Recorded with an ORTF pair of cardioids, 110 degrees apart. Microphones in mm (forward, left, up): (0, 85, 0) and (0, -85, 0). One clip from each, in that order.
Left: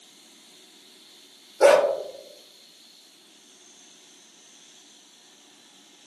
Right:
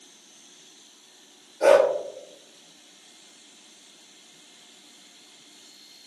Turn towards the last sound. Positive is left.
turn(degrees=65)